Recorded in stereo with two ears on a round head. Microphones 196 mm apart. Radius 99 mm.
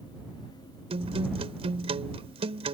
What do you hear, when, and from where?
0.9 s a guitar: 30° right (ahead or behind)